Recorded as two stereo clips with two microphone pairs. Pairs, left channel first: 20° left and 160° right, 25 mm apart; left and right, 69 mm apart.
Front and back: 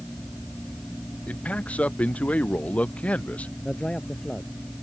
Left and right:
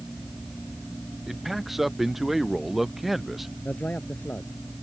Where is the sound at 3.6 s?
40° left.